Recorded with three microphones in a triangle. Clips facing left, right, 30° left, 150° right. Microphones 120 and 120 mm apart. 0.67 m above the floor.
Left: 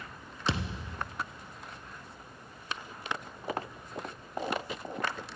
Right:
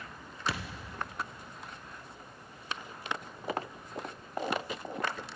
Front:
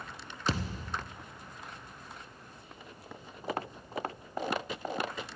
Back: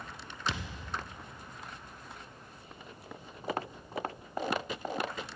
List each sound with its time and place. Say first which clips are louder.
0.5 s a thud: left 4 dB, front 5 dB; 40° left, 0.8 m